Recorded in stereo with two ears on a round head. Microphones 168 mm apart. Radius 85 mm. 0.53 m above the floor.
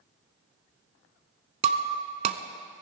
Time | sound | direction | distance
1.6 | breaking glass | 35° right (ahead or behind) | 0.8 m